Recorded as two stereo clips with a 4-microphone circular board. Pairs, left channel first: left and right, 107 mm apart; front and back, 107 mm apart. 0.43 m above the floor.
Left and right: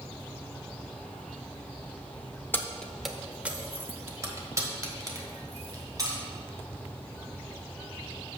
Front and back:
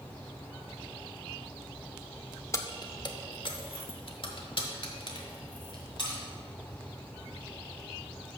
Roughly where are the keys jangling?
Ahead left.